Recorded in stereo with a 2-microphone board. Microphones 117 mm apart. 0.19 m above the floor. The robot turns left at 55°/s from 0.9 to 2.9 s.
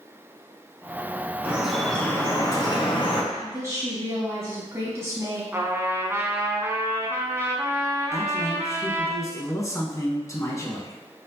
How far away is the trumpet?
About 1.2 m.